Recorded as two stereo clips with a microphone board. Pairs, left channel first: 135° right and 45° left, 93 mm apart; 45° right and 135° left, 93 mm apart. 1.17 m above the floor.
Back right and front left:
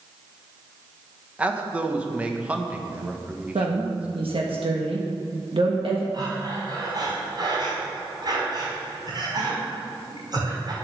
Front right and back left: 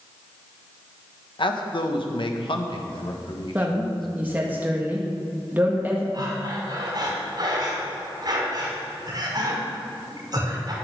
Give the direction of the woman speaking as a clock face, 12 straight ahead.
10 o'clock.